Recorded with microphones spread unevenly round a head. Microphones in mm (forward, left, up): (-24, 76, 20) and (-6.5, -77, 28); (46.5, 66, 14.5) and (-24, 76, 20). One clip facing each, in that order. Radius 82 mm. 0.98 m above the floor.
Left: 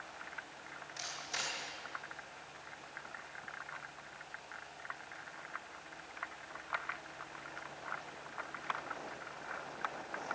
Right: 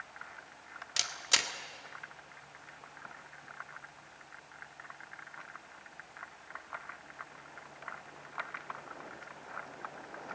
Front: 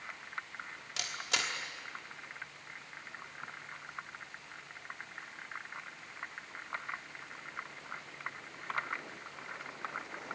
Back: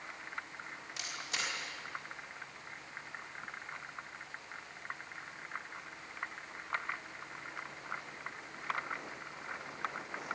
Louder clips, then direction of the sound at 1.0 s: Right 5 dB, front 4 dB; 70° right.